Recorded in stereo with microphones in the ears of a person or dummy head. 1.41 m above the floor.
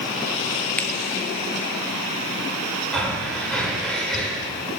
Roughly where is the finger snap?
Centre.